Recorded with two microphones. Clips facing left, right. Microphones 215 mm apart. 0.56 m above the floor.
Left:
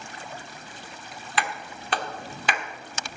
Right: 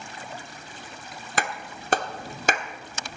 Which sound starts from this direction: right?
A clap, at 1.4 s.